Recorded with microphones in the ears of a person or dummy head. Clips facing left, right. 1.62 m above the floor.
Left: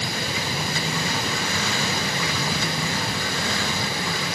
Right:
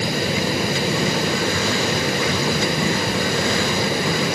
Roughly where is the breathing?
No breathing in this recording.